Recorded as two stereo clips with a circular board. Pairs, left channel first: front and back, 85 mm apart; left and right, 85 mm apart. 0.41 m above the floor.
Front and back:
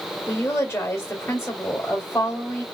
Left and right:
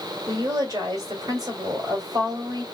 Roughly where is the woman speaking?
Ahead right.